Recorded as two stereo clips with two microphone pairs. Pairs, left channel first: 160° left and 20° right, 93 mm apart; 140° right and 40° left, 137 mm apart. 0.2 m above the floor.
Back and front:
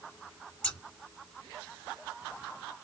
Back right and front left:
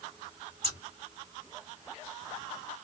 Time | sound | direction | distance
0.6 | scissors | 85° left | 2 m